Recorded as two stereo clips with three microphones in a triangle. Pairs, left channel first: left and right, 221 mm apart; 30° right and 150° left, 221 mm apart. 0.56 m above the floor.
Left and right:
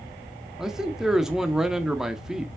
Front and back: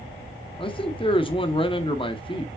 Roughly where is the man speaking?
Ahead.